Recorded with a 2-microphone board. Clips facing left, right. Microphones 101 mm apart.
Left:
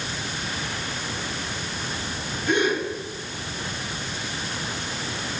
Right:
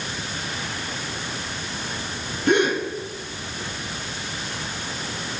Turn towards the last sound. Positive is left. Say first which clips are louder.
# right 3 dB
turn(degrees=-65)  # may be behind; listen again after turning